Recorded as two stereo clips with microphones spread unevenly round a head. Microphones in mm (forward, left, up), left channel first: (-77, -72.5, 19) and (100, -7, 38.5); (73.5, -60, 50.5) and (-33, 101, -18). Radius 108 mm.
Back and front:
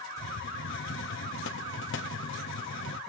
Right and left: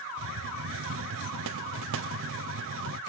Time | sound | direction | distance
0.2 | a hiss | 160° left | 0.5 m